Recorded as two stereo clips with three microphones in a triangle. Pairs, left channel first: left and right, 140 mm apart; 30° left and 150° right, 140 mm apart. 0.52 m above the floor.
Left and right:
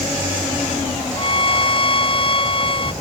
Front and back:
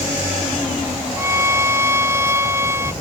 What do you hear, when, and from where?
1.2 s a violin: 140° left